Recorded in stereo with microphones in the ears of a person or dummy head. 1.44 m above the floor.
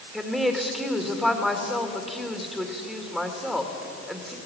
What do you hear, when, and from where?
0.1 s a woman speaking: 5° right (ahead or behind), 2 m